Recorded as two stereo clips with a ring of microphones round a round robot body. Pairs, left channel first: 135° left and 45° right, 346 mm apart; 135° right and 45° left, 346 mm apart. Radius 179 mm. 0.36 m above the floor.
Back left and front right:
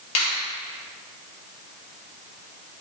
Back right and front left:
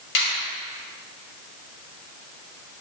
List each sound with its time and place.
0.1 s a finger snap: 170° left, 2 m